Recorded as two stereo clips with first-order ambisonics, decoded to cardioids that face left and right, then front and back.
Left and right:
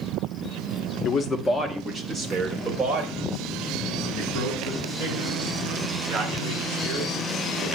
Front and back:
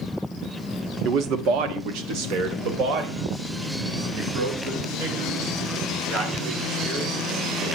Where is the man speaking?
145° left, 1.2 m; by 7.7 s 140° right, 10 m.